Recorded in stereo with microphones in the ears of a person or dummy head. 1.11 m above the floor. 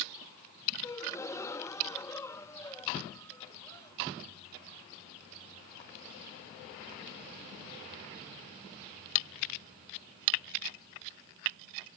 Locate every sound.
0.8 s a gasp: 15° left (ahead or behind)